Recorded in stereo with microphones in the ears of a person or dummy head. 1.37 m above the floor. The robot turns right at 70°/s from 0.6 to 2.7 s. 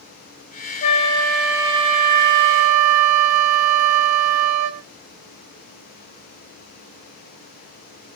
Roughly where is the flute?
Behind left.